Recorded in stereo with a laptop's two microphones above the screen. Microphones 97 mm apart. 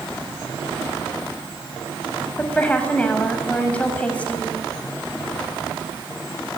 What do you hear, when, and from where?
2.4 s a woman speaking: 15° left (ahead or behind), 7 m